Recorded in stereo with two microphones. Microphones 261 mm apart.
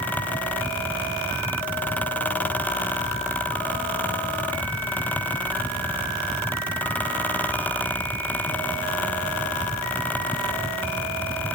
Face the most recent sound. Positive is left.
No sound to turn to.